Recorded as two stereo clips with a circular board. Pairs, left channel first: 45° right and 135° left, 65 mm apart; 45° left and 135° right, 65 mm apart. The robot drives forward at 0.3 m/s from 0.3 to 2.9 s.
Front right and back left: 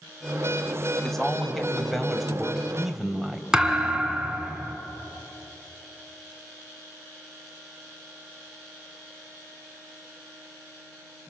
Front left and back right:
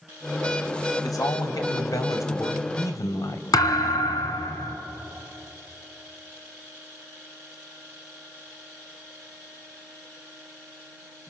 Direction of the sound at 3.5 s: 55° left.